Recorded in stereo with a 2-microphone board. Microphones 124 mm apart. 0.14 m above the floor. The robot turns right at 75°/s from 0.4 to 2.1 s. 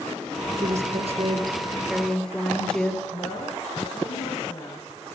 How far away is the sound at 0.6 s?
About 2.5 m.